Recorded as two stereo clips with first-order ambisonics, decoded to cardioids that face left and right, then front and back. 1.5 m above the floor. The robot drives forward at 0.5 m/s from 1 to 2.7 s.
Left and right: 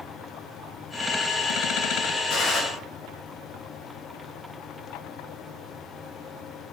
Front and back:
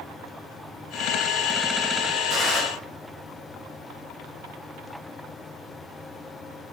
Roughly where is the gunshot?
Behind left.